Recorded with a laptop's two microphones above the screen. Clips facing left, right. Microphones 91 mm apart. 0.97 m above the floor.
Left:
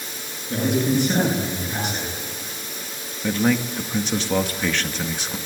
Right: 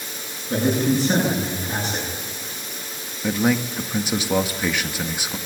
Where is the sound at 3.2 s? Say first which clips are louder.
Even; 10° right (ahead or behind), 1.8 m.